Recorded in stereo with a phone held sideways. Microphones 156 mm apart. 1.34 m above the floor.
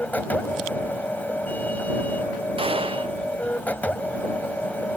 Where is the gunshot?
35° right (ahead or behind).